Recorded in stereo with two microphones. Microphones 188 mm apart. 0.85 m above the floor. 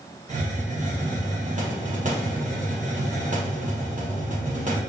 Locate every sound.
0.3 s a hiss: 40° right (ahead or behind), 0.8 m